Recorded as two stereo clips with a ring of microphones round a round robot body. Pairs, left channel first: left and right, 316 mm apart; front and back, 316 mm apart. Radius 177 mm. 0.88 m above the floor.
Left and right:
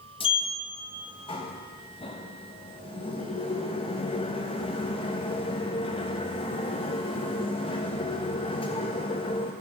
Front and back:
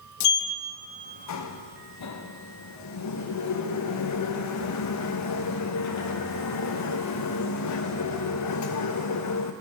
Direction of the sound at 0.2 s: 20° left.